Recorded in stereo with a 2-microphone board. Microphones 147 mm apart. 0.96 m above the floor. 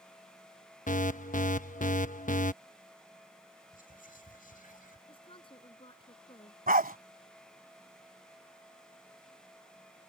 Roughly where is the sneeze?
No sneeze in this recording.